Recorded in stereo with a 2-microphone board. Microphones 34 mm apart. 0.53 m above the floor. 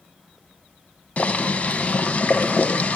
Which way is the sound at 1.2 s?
45° left (ahead or behind).